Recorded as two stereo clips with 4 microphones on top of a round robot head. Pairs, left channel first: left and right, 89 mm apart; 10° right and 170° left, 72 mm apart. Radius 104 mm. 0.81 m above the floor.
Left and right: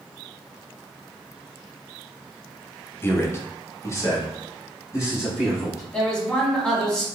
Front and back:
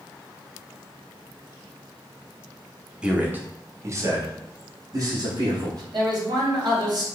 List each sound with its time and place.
3.0 s a man speaking: 110° left, 1.0 m; by 5.8 s 145° left, 2.5 m
5.9 s a man speaking: 170° left, 2.5 m